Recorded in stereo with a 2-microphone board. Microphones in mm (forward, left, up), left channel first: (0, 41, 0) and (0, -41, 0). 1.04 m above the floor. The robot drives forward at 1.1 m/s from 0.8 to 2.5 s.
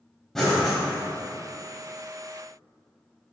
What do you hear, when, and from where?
0.3 s breathing: 5° left (ahead or behind), 2 m